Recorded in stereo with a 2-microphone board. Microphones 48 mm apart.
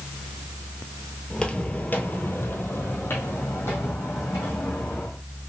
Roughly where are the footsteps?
Centre.